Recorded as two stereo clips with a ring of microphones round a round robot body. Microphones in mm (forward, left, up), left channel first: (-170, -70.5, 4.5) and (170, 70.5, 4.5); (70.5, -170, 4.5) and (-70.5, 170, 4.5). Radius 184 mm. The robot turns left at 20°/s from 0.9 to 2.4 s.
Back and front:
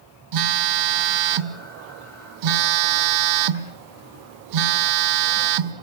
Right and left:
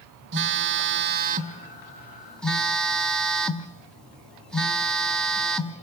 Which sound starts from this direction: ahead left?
A phone buzzing, at 0.3 s.